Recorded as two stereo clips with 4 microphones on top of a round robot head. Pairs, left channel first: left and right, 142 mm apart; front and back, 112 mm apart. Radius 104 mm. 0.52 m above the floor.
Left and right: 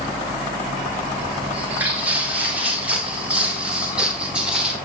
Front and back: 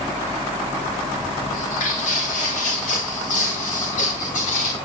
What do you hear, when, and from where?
1.5 s footsteps: 10° right, 8.5 m; by 4.8 s 5° right, 7 m